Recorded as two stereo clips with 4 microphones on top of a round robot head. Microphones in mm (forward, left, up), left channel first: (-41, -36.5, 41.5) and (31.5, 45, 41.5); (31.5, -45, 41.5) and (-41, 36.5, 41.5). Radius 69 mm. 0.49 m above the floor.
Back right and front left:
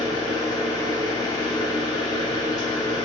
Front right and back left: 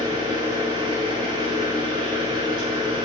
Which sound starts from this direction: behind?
An engine running, at 0.0 s.